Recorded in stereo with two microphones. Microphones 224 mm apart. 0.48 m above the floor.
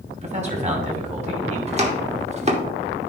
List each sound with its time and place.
0.2 s a man speaking: 30° right (ahead or behind), 2.5 m
1.7 s chopping: 30° right (ahead or behind), 1.4 m